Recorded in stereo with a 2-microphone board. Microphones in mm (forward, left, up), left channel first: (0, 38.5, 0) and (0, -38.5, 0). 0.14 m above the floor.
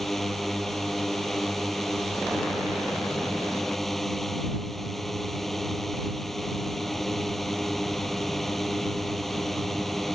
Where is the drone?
5° left (ahead or behind).